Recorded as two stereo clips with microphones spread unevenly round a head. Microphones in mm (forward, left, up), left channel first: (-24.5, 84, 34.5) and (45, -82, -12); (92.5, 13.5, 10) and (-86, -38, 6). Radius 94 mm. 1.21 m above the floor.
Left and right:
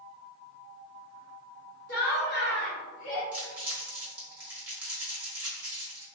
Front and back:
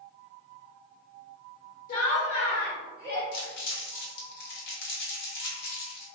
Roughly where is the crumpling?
Ahead left.